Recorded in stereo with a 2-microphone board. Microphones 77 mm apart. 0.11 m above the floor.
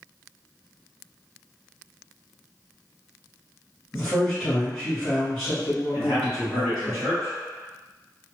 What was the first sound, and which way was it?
A man speaking, 5° left (ahead or behind).